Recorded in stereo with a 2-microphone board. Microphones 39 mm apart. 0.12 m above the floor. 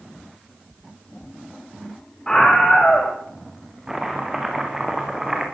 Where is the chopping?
15° right (ahead or behind), 5 m.